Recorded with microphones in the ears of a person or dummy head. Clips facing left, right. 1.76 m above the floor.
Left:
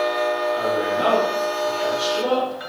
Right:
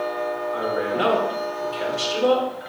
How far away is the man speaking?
About 2.5 m.